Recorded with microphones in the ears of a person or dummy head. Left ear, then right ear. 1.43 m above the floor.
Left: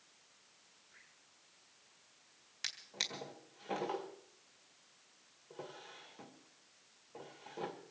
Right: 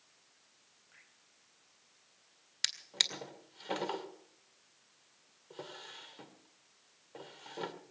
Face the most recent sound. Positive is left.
turn(degrees=-25)  # may be behind; listen again after turning